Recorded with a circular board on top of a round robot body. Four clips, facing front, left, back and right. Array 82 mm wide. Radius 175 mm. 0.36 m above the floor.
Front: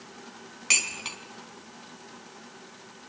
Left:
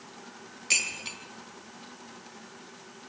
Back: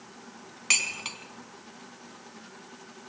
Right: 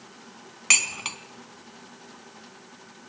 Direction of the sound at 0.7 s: 90° right.